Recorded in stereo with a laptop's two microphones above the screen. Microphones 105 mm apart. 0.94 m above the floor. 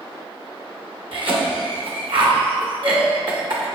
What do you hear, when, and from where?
1.1 s a cough: 60° right (ahead or behind), 0.8 m